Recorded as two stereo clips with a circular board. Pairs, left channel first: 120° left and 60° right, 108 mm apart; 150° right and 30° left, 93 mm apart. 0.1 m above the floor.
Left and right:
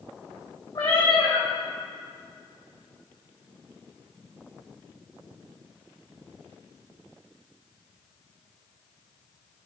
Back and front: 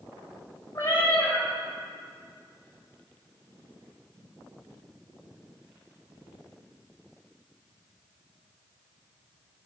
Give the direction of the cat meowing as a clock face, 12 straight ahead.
7 o'clock.